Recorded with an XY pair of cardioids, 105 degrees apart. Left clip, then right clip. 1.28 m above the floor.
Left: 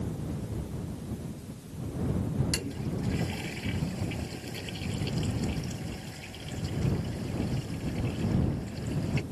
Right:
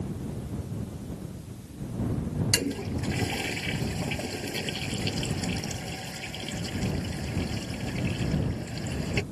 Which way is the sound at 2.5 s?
50° right.